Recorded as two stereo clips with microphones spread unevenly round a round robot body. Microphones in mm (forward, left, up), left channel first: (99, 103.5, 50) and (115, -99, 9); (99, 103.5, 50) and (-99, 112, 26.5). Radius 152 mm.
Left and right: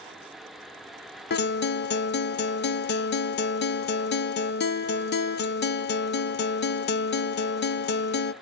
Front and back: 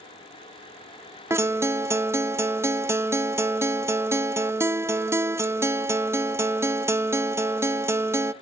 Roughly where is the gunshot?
I don't hear a gunshot.